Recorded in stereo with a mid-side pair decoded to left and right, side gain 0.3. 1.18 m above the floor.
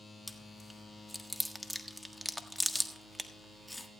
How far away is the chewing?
About 1.5 m.